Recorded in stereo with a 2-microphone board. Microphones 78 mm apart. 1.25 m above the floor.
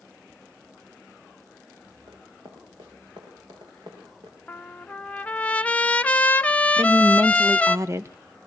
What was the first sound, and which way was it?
Running footsteps, 70° right (ahead or behind).